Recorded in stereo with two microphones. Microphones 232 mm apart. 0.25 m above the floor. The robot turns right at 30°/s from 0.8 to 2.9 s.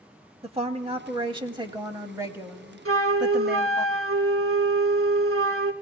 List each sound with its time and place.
0.4 s a woman speaking: 25° right (ahead or behind), 1.0 m; by 3.9 s 5° right (ahead or behind), 1.0 m
2.9 s a flute: 70° right (ahead or behind), 0.6 m